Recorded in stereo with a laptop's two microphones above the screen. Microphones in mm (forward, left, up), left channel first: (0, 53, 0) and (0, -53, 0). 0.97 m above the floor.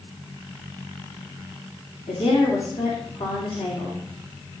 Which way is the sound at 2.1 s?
75° left (ahead or behind).